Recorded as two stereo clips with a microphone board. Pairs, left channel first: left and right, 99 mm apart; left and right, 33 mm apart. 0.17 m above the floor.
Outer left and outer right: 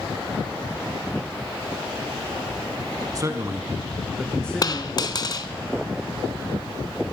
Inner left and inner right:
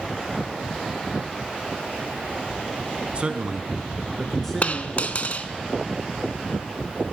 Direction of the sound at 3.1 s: 35° right (ahead or behind).